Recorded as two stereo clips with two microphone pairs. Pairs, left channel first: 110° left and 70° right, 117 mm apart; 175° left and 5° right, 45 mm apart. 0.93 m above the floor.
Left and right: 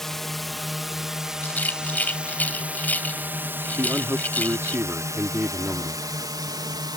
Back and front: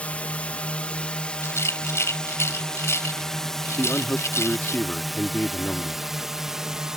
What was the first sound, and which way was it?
A drone, 170° right.